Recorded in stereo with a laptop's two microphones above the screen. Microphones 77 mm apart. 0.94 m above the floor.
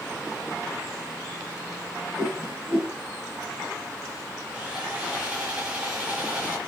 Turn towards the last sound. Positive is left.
turn(degrees=-15)  # may be behind; listen again after turning